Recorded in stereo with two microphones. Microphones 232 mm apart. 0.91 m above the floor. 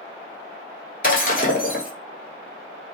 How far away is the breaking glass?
About 1.1 m.